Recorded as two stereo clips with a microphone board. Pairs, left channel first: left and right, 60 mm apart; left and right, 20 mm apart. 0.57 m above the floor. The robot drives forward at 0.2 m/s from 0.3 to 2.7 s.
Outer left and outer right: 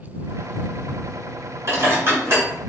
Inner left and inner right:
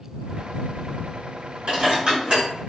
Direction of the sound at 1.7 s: 45° right (ahead or behind).